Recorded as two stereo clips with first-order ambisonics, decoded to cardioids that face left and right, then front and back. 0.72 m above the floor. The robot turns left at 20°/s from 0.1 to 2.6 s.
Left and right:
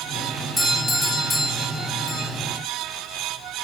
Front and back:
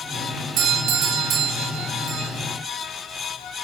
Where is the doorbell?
170° right, 2.5 m; by 2.3 s 155° left, 2.5 m.